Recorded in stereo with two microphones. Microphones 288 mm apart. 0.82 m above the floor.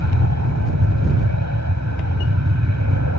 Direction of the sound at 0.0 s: 65° right (ahead or behind).